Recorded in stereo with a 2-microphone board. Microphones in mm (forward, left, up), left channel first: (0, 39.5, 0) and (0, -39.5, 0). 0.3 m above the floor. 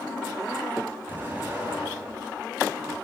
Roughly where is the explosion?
Right.